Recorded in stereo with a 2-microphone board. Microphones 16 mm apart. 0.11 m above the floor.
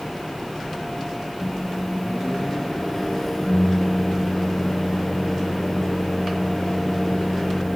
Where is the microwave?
20° left (ahead or behind), 0.9 m.